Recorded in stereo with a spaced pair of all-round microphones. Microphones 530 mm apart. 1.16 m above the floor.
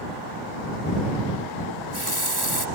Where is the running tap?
45° right (ahead or behind).